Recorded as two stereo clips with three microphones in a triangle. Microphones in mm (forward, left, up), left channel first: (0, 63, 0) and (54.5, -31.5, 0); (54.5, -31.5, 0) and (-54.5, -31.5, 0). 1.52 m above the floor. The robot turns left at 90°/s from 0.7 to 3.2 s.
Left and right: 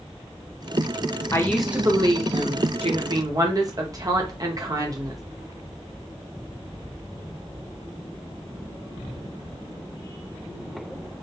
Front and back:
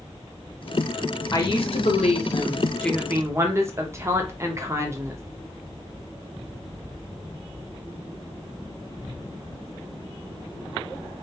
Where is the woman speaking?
55° left, 0.6 m; by 5.2 s 115° right, 0.6 m.